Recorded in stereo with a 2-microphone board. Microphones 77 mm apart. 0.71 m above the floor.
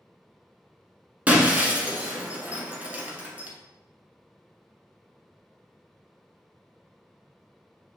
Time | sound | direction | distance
1.3 | breaking glass | 20° right (ahead or behind) | 0.9 m